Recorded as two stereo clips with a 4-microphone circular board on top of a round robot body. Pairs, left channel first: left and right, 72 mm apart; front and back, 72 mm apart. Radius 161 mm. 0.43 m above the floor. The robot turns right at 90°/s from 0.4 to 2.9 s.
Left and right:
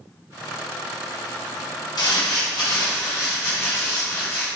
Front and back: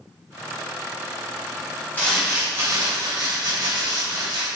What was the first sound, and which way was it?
Crumpling, 65° left.